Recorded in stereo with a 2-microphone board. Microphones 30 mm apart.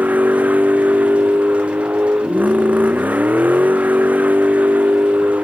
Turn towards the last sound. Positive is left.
turn(degrees=-70)  # may be behind; listen again after turning